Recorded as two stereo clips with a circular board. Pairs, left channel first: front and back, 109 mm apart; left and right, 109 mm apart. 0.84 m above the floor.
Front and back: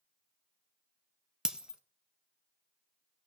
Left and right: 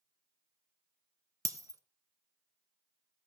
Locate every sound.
1.4 s breaking glass: 100° right, 0.8 m